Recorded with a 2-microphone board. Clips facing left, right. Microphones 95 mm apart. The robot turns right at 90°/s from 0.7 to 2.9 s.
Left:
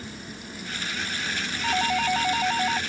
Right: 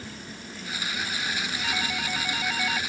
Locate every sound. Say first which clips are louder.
1.6 s a doorbell: left 10 dB; 50° left; by 2.8 s 155° left